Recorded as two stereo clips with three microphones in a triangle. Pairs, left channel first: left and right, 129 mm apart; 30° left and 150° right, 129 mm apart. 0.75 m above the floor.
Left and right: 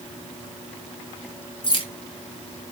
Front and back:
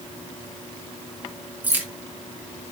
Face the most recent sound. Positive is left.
turn(degrees=135)